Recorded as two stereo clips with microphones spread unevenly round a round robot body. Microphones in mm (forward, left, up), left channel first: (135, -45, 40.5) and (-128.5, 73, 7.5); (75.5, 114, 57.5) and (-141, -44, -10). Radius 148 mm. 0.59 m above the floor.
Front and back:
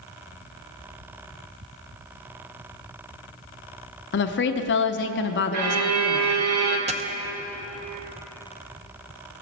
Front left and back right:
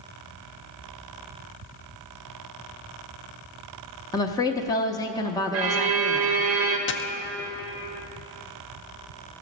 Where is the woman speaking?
55° right, 0.7 m.